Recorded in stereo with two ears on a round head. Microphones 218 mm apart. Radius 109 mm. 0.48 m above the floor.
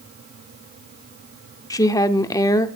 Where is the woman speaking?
15° left (ahead or behind), 0.9 m.